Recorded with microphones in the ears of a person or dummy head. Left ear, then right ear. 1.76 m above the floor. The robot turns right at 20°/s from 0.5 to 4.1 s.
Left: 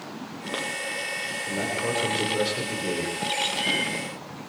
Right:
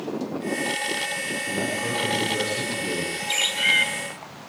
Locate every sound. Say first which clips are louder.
1.5 s a man speaking: left 1 dB; 10° left, 7 m; by 3.1 s 45° left, 7 m
3.3 s a bird: right 6 dB; 30° right (ahead or behind), 3.5 m; by 3.9 s 40° right (ahead or behind), 3.5 m